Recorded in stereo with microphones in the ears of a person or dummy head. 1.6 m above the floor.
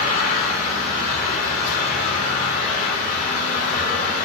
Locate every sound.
0.0 s an engine running: 55° left (ahead or behind), 4 m